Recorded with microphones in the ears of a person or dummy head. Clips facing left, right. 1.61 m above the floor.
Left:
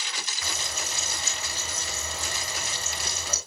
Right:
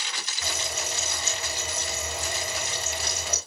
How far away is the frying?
About 9.5 m.